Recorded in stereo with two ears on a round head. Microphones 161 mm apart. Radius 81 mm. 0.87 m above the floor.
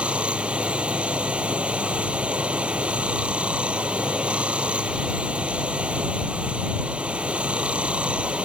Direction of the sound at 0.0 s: 5° right (ahead or behind).